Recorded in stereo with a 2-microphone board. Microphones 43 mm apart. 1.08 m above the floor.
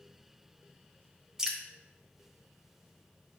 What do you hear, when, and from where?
1.4 s dripping: 15° right (ahead or behind), 1.5 m